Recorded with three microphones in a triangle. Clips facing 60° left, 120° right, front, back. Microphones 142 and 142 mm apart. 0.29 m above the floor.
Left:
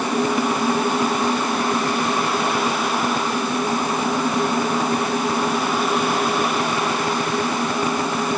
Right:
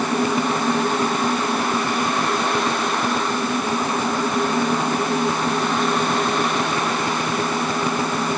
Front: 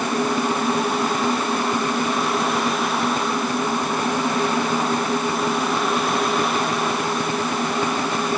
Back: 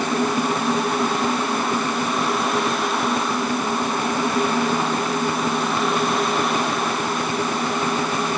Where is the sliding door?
No sliding door in this recording.